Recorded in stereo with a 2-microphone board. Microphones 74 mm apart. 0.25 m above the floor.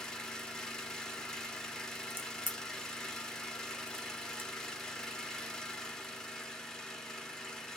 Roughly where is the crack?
Right.